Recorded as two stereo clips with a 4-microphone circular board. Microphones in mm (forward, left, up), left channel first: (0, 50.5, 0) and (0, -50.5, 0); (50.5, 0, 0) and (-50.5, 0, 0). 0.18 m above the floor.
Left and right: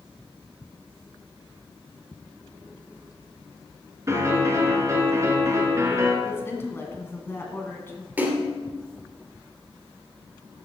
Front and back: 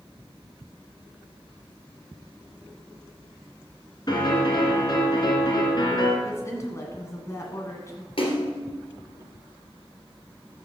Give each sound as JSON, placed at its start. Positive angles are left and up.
{"t": 4.1, "sound": "a piano", "azimuth_deg": -35, "distance_m": 2.5}
{"t": 6.2, "sound": "a woman speaking", "azimuth_deg": 40, "distance_m": 1.6}
{"t": 8.2, "sound": "a splash", "azimuth_deg": -20, "distance_m": 2.5}